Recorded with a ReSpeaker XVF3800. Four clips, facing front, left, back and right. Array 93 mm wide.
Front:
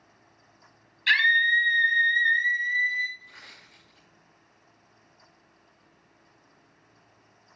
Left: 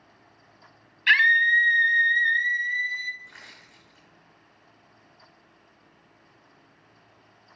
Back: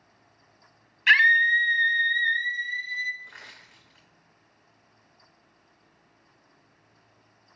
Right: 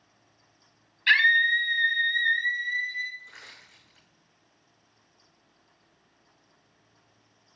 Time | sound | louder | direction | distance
1.1 | a scream | left 2 dB, back 3 dB | 155° left | 1.2 m
3.2 | crushing | left 2 dB, back 4 dB | 150° left | 3.5 m